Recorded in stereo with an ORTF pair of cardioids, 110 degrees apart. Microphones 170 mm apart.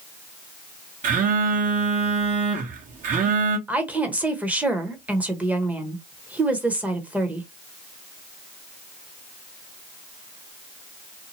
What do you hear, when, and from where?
1.0 s a phone buzzing: 50° right, 1.2 m
3.7 s a woman speaking: 10° right, 1.0 m